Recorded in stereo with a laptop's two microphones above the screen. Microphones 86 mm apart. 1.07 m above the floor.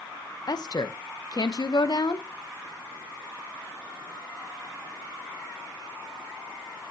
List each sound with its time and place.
0.5 s a woman speaking: 50° left (ahead or behind), 1.0 m